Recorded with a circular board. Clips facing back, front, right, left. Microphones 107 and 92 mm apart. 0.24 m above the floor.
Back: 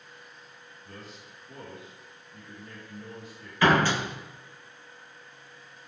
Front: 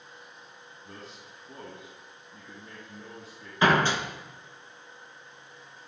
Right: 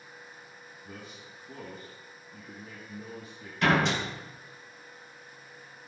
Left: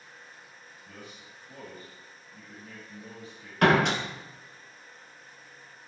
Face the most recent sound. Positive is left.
turn(degrees=65)